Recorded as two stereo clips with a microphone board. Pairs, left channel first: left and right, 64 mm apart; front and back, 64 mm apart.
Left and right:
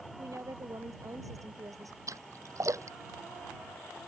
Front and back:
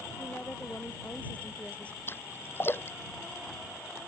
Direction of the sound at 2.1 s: 55° right.